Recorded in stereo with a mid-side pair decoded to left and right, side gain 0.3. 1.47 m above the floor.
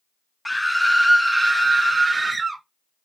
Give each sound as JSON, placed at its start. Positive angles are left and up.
{"t": 0.5, "sound": "a scream", "azimuth_deg": 10, "distance_m": 0.9}